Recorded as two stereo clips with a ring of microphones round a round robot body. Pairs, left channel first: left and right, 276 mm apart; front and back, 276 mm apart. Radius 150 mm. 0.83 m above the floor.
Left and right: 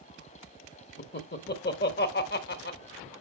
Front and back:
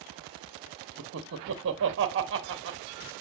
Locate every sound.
1.0 s laughter: 140° left, 1.1 m